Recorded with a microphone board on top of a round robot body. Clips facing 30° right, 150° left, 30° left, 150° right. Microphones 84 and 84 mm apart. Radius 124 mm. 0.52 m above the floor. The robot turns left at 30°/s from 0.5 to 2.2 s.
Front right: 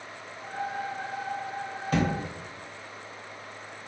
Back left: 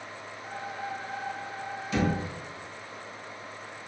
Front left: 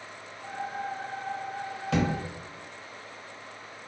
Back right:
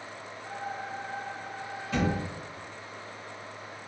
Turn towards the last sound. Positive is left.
turn(degrees=5)